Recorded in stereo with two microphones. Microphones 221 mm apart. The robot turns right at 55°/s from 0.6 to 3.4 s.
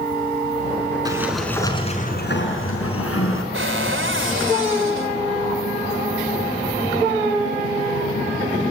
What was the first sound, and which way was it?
A sliding door, 20° right.